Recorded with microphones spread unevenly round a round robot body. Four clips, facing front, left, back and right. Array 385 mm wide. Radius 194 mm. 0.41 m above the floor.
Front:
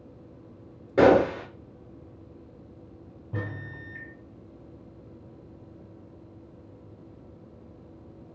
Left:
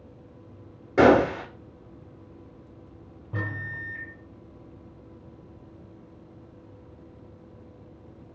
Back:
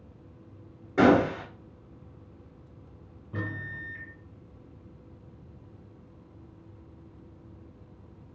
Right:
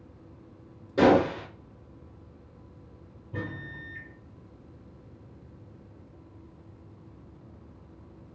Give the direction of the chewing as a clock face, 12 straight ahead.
No chewing in this recording.